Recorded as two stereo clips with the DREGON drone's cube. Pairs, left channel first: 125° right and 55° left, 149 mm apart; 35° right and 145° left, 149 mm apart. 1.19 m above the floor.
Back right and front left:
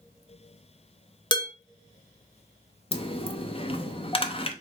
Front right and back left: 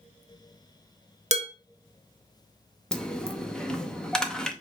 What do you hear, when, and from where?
1.3 s dishes clattering: straight behind, 0.8 m
2.9 s a dropped coin: 120° right, 0.6 m